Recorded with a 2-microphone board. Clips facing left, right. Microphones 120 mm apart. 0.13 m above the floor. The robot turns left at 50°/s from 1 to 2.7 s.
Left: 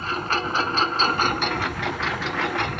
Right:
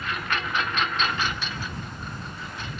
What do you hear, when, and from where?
0.0 s a lawn mower: 145° left; by 2.8 s 60° left